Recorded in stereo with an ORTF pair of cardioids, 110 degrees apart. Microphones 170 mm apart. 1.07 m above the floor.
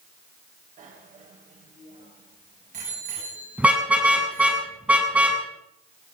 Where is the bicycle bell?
50° right, 4 m; by 4.6 s 45° right, 6.5 m.